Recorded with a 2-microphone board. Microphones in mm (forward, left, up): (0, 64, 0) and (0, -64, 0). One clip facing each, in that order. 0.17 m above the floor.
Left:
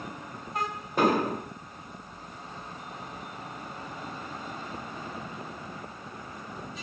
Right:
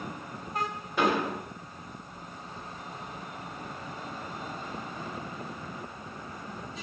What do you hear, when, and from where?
1.0 s an explosion: 40° left (ahead or behind), 1.0 m